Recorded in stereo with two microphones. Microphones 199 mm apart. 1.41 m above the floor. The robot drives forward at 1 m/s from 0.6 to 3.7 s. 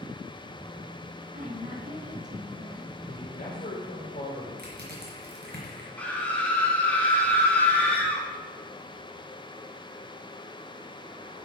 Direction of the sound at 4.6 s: 55° right (ahead or behind).